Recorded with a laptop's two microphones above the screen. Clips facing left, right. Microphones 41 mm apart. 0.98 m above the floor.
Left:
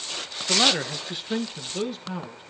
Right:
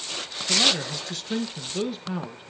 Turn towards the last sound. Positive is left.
turn(degrees=-15)  # may be behind; listen again after turning